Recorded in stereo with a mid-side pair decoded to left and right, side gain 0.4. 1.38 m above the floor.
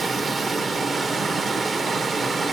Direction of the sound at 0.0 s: 45° right.